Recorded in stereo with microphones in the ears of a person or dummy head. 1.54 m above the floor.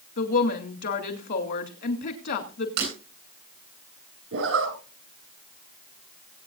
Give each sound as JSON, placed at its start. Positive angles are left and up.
{"t": 0.2, "sound": "a woman speaking", "side_deg": 60, "distance_m": 2.5}
{"t": 2.8, "sound": "breaking glass", "side_deg": -60, "distance_m": 10.0}
{"t": 4.3, "sound": "a zipper", "side_deg": -70, "distance_m": 4.0}